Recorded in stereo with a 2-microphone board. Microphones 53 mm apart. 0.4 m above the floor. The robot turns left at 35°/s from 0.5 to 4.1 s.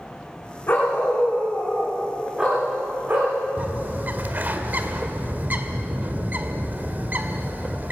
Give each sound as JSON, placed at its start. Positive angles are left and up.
{"t": 0.7, "sound": "a dog barking", "azimuth_deg": 40, "distance_m": 8.0}
{"t": 3.6, "sound": "a bird", "side_deg": -35, "distance_m": 1.5}